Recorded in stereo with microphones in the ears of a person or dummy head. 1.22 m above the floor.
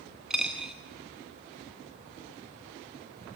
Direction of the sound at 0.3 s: Centre (ahead or behind).